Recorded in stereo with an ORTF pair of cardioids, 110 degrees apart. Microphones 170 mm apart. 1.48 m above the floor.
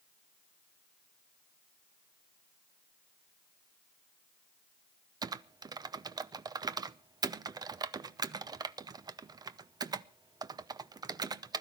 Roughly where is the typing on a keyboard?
Ahead right.